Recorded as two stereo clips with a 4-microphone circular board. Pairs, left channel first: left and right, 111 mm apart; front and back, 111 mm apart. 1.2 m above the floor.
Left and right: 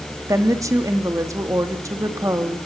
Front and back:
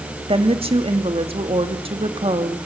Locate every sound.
0.3 s a woman speaking: 150° right, 2 m